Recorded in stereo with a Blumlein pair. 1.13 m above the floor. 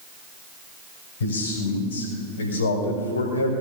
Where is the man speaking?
60° left, 6 m; by 3.5 s 75° left, 3.5 m.